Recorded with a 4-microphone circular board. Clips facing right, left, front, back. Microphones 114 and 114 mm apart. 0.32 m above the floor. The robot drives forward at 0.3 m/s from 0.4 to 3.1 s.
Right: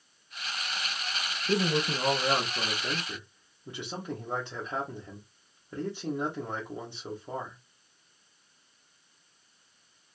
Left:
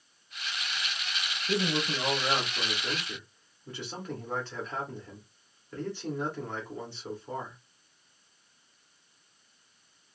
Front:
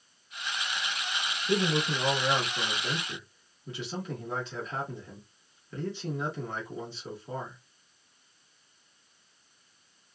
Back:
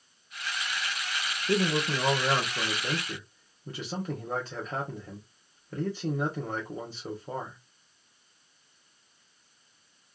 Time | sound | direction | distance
1.5 | a man speaking | 130° right | 0.9 m